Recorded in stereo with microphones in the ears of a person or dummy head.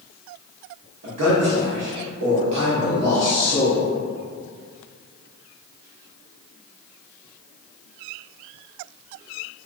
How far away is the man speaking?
About 0.7 m.